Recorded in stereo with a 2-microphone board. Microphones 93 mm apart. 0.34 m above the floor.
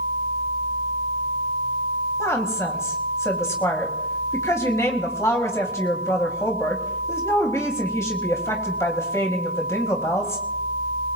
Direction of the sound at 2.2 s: 35° left (ahead or behind).